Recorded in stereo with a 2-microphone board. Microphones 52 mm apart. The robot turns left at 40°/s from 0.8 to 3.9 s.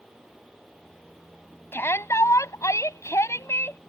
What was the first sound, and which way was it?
A shout, 130° left.